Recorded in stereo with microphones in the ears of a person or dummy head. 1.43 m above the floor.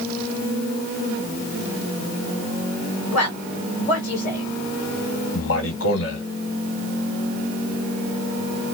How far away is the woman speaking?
About 3 m.